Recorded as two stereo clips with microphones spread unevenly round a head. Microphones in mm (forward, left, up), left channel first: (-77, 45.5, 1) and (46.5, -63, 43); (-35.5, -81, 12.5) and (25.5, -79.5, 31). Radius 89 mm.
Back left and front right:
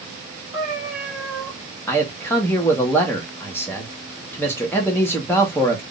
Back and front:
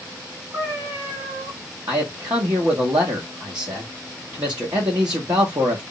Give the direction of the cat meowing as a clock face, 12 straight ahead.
11 o'clock.